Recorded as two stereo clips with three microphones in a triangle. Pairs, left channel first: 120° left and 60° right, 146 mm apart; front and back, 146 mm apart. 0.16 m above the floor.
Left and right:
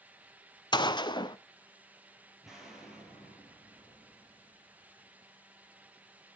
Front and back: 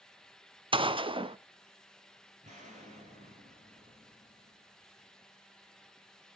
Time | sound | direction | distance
0.7 | a gunshot | 160° left | 0.6 m
2.4 | an explosion | 150° right | 4.5 m